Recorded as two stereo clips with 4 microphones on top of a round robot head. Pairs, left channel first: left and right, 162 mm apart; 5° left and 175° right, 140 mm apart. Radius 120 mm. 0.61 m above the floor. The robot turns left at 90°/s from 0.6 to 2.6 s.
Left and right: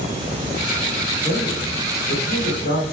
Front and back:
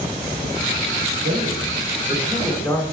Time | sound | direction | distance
1.2 | a man speaking | 155° right | 2.5 m